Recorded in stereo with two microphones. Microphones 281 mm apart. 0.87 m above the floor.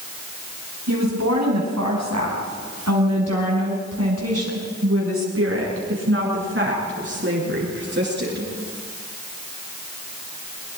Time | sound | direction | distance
0.9 | a woman speaking | 80° right | 5.5 m